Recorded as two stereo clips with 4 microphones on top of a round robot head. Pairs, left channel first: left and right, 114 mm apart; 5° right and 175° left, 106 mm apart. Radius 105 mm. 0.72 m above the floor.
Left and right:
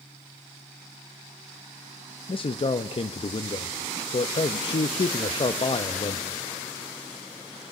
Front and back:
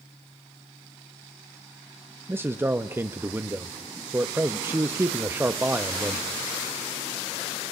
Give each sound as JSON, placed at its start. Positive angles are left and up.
{"t": 2.3, "sound": "a man speaking", "azimuth_deg": 110, "distance_m": 0.8}